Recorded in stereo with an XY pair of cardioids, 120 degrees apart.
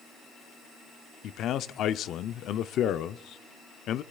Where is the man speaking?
60° left, 0.6 m.